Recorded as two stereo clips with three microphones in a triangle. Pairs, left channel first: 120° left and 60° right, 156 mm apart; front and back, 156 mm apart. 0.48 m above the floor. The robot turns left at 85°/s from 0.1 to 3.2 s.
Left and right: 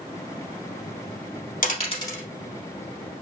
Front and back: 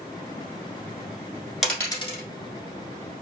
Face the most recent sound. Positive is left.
turn(degrees=-45)